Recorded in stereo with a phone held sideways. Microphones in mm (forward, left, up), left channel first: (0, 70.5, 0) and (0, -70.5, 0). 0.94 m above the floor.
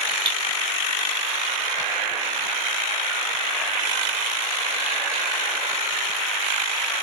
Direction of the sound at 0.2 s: 40° right (ahead or behind).